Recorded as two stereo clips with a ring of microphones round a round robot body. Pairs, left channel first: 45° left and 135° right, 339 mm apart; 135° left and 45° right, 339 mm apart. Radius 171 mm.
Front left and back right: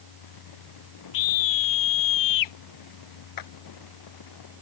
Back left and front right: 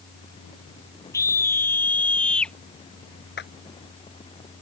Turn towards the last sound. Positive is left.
turn(degrees=75)